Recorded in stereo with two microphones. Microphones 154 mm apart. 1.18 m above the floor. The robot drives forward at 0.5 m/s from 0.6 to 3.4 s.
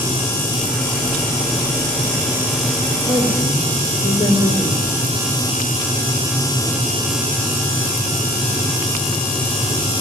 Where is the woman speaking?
30° left (ahead or behind), 3.5 m; by 5.1 s 25° left (ahead or behind), 4 m.